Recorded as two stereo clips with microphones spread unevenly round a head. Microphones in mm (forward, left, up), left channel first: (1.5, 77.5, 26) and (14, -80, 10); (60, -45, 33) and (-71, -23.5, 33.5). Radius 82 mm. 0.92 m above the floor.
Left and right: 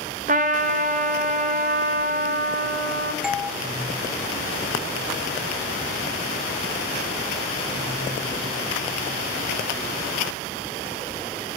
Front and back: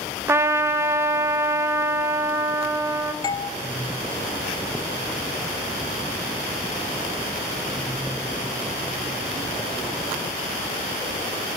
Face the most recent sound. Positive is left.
turn(degrees=-10)